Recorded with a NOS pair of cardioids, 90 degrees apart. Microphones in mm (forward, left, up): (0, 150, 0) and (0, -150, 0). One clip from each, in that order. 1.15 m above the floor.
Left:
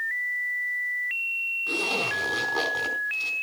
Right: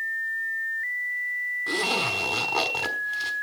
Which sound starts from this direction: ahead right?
A zipper, at 1.7 s.